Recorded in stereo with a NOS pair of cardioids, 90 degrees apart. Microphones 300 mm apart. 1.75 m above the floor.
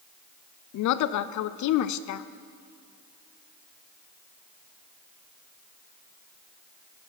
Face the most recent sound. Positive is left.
turn(degrees=65)